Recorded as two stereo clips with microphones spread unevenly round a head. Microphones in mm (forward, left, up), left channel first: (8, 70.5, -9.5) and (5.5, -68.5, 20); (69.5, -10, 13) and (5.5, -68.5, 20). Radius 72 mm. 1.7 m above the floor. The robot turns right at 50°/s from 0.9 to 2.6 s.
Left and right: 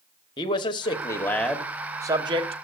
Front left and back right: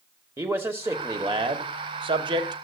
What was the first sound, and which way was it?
A man speaking, 155° left.